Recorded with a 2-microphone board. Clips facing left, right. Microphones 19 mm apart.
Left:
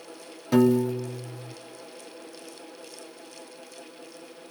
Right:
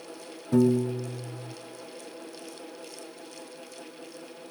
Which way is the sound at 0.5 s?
75° left (ahead or behind).